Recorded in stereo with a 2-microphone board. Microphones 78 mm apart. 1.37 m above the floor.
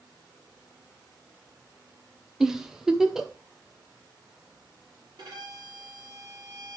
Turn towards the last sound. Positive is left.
turn(degrees=-70)  # may be behind; listen again after turning